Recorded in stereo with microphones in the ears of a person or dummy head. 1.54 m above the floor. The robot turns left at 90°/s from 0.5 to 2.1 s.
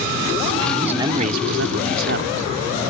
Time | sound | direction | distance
0.8 | a man speaking | 5° right | ?